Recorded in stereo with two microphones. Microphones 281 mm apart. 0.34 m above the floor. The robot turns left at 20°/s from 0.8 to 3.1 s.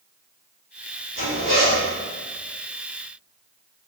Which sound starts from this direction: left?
A zipper, at 1.1 s.